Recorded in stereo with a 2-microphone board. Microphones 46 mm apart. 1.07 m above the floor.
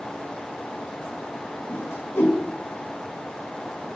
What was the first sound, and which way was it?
A whoosh, 75° left (ahead or behind).